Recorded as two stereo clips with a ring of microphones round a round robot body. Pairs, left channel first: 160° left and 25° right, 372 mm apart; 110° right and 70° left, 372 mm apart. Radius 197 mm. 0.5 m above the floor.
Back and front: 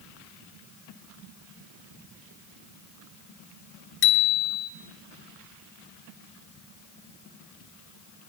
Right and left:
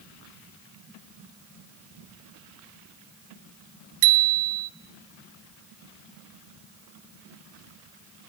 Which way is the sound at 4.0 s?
100° left.